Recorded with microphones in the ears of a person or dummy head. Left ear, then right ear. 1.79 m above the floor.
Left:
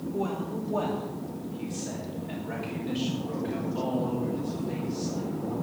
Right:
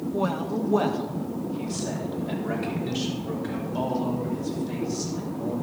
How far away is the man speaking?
About 1.7 m.